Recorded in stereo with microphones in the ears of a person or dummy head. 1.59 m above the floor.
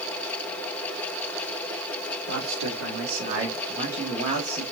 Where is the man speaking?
75° right (ahead or behind), 2.0 m; by 4.6 s 25° right (ahead or behind), 1.2 m.